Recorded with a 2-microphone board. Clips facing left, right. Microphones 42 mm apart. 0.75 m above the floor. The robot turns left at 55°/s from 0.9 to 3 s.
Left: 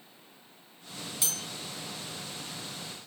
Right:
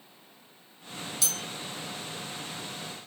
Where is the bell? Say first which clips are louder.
Right 1 dB; 20° left (ahead or behind), 0.7 m; by 1.4 s 10° left (ahead or behind), 0.7 m.